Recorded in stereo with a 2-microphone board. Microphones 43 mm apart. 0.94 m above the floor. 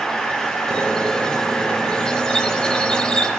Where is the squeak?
20° left (ahead or behind), 0.7 m.